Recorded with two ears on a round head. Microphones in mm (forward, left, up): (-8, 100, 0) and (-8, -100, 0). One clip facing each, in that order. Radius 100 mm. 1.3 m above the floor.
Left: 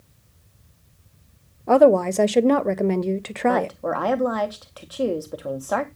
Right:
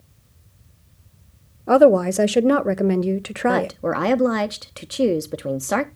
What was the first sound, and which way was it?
A woman speaking, 5° right (ahead or behind).